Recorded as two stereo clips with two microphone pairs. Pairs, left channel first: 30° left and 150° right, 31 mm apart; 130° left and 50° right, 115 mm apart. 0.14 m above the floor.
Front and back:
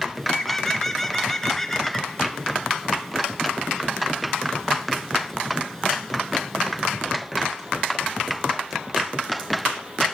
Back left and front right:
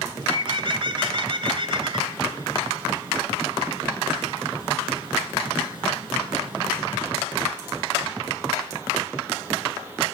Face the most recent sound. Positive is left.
turn(degrees=-45)